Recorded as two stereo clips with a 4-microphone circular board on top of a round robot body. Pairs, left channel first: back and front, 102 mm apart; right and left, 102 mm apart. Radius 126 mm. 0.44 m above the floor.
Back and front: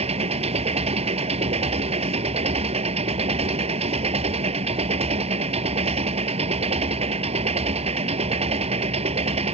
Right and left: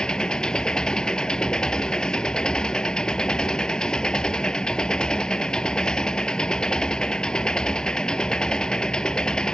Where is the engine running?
10° right.